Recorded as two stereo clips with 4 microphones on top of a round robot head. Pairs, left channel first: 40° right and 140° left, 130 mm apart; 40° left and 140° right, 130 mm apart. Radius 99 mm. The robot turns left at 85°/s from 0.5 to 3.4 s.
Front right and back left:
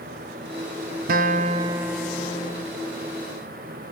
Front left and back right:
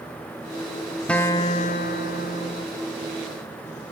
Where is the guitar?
125° left, 0.6 m; by 2.7 s 5° right, 0.6 m.